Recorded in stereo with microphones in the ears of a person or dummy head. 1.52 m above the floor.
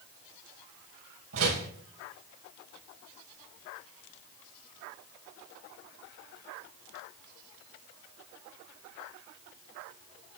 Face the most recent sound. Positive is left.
turn(degrees=-80)